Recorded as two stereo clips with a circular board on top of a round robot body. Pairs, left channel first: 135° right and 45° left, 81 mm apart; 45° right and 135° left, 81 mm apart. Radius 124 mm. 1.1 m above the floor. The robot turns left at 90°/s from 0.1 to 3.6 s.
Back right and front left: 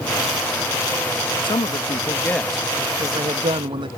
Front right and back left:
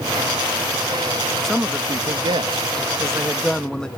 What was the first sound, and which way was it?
A man speaking, 130° right.